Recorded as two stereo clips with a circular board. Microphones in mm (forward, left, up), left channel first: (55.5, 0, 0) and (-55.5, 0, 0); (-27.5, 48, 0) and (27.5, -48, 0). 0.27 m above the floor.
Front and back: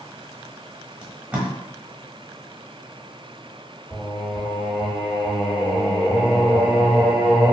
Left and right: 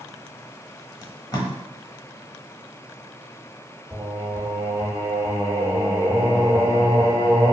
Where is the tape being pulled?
115° left, 0.9 m.